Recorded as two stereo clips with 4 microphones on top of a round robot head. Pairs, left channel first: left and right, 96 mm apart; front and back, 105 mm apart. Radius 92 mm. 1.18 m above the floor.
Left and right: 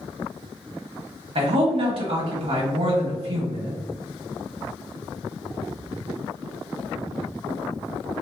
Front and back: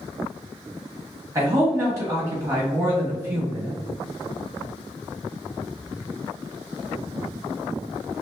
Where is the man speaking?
115° right, 1.2 m.